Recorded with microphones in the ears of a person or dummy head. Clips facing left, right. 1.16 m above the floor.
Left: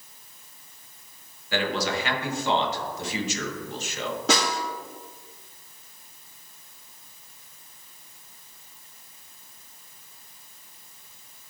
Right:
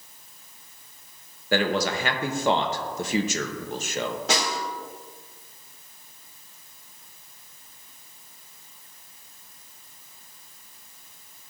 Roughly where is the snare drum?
Left.